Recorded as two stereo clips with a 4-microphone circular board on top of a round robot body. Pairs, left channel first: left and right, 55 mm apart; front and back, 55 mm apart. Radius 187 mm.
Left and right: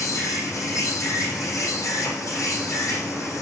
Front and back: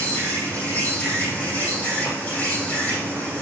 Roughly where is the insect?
Ahead left.